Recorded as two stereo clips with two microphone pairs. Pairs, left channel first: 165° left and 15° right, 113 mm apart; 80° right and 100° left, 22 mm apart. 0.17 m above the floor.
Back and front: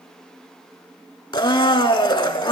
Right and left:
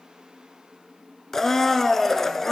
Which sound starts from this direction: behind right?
A blender, at 1.3 s.